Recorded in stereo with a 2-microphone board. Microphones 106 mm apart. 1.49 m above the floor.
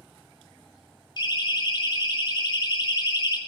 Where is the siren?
45° left (ahead or behind), 6 m.